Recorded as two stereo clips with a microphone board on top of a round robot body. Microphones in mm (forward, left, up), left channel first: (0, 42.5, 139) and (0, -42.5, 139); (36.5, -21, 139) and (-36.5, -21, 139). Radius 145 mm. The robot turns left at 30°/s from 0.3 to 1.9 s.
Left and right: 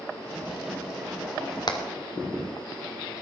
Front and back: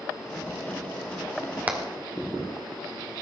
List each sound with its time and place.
1.7 s hammering: 115° left, 1.9 m; by 1.8 s 110° left, 1.9 m